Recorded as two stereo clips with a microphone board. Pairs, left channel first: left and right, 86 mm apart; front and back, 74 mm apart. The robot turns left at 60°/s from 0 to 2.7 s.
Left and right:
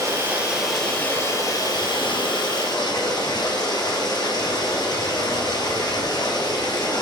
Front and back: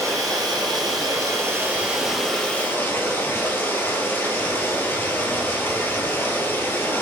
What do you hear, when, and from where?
0.0 s running water: 140° right, 2 m; by 7.0 s 55° left, 2 m